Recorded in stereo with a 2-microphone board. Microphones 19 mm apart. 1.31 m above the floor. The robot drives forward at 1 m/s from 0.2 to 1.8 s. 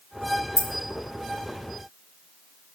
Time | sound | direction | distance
0.6 | keys jangling | 20° left (ahead or behind) | 0.7 m